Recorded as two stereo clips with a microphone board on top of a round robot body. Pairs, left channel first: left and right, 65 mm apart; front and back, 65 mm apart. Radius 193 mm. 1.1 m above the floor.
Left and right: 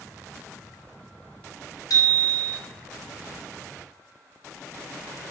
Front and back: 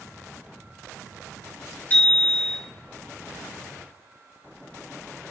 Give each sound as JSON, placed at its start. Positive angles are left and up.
{"t": 1.9, "sound": "a bicycle bell", "azimuth_deg": 65, "distance_m": 4.0}